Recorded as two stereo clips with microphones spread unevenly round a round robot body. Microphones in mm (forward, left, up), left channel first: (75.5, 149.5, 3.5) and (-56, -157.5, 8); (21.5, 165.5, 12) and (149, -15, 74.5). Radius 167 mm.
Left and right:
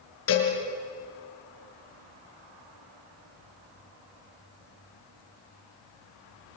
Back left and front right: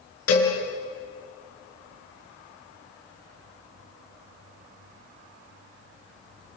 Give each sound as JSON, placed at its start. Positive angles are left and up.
{"t": 0.3, "sound": "a cowbell", "azimuth_deg": 115, "distance_m": 6.0}